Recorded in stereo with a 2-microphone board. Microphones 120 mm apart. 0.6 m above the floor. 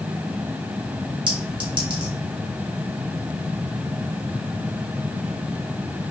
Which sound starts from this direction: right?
A clink, at 1.3 s.